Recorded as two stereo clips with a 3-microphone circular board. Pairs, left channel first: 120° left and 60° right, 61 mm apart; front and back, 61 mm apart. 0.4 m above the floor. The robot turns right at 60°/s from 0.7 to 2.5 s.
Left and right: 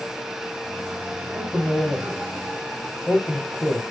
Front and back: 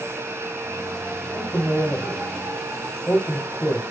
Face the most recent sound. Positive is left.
turn(degrees=10)